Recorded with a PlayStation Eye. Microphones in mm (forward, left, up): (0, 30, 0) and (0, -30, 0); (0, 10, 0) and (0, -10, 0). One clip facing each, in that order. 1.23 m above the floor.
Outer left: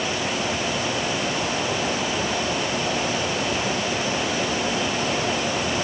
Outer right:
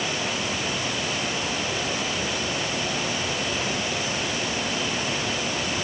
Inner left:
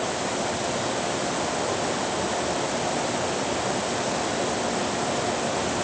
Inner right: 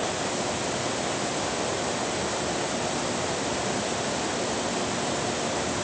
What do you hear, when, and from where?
Only background noise.